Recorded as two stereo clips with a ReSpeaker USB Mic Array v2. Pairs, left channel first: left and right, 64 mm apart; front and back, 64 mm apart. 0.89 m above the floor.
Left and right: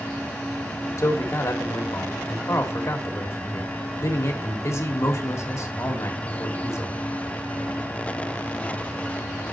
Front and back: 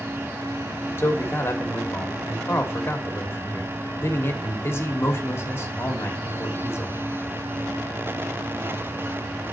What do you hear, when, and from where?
1.0 s a man speaking: 50° left, 1.5 m